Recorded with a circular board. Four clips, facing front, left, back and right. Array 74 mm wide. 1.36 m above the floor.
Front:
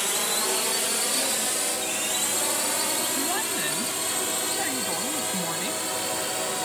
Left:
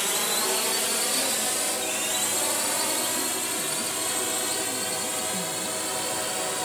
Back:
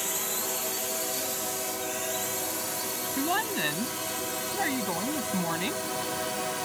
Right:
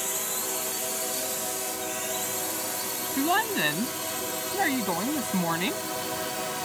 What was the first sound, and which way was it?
A drone, 50° left.